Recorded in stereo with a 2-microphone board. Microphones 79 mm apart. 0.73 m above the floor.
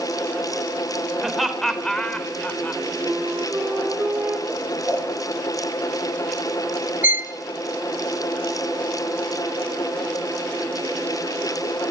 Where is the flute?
25° right (ahead or behind), 2.5 m.